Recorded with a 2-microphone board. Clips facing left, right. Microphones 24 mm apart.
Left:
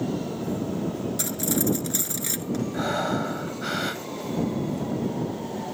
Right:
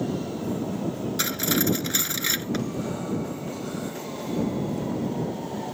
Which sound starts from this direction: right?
Cutlery clinking, at 1.2 s.